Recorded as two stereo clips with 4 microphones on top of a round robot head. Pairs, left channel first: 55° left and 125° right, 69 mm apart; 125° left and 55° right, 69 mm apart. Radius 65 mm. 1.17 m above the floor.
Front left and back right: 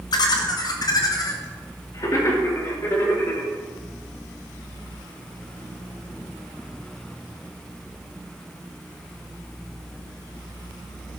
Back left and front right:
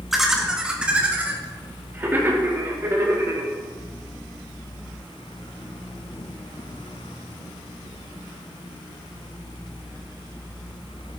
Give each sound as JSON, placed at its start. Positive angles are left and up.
{"t": 0.1, "sound": "laughter", "azimuth_deg": 35, "distance_m": 2.0}